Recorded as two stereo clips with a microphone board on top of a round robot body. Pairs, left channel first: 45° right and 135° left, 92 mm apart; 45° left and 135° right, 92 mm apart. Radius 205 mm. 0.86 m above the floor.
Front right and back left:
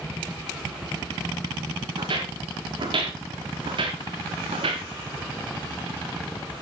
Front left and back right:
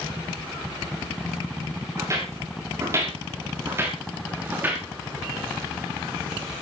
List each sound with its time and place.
2.0 s footsteps: 165° left, 7 m; by 4.8 s 155° left, 5.5 m